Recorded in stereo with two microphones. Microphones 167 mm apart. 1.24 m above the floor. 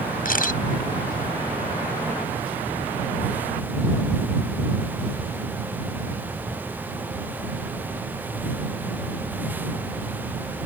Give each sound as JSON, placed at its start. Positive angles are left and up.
{"t": 0.2, "sound": "a camera shutter", "side_deg": 55}